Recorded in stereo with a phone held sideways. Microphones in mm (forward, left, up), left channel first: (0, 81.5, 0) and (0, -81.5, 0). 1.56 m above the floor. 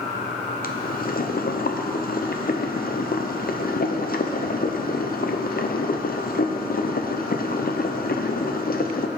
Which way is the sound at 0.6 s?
65° left (ahead or behind).